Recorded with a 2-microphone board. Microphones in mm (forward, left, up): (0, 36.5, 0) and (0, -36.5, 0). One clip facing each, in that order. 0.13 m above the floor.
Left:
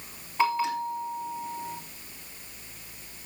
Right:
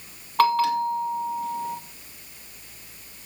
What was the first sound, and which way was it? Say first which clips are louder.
A bell: right 6 dB; 75° right (ahead or behind).